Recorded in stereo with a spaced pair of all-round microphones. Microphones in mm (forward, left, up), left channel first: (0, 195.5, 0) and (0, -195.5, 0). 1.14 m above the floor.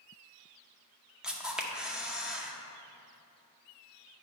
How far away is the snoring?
I don't hear snoring.